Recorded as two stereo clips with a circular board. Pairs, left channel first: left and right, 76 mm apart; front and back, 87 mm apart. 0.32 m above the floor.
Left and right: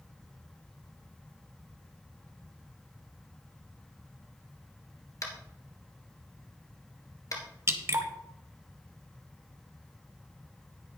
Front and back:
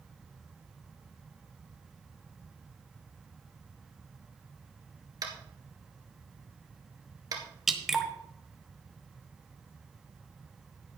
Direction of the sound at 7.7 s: 95° right.